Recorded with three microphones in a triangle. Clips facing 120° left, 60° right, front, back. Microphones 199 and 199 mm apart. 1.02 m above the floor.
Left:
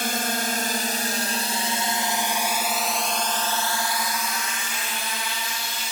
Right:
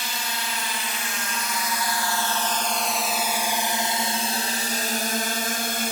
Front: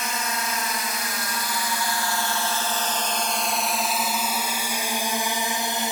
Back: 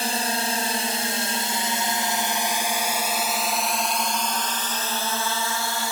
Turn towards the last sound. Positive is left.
turn(degrees=-65)